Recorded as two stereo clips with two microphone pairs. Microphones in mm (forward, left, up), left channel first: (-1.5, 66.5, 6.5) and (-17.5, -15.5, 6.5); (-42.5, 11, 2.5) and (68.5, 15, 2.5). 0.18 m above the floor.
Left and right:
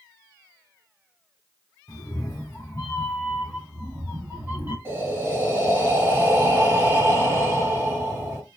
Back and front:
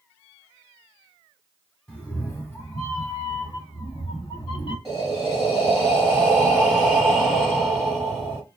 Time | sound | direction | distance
1.9 | a cat meowing | 100° left | 1.2 m
4.8 | breathing | 95° right | 1.2 m